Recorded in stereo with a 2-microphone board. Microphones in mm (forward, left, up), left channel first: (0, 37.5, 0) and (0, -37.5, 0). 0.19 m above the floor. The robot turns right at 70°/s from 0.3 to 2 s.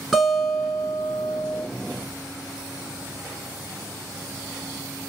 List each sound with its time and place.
0.1 s a guitar: 10° right, 1.5 m; by 1.6 s 85° left, 1.5 m